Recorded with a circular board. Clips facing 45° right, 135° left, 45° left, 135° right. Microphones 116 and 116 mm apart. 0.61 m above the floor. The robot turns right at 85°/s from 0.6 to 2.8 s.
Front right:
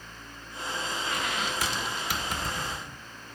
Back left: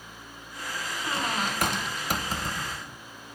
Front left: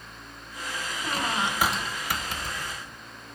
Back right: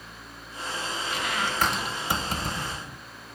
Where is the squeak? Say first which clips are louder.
Back left 5 dB, front left 3 dB; 75° left, 0.7 m; by 3.0 s 135° right, 0.7 m.